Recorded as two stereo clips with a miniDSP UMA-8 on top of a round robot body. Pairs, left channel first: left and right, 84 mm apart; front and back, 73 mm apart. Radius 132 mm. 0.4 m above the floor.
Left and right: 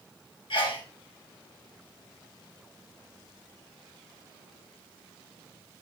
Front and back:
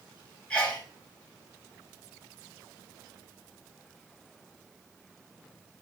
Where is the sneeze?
75° left, 3 m.